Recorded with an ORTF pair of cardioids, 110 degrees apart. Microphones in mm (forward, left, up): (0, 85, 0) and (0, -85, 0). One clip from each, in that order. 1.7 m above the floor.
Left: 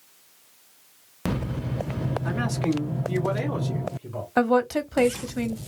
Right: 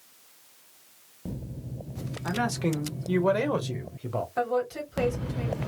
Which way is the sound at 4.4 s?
65° left.